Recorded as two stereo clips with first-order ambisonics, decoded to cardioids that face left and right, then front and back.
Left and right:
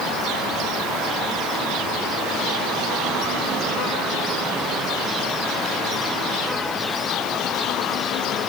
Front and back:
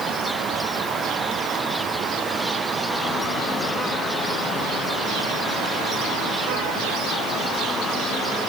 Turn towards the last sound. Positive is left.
No sound to turn to.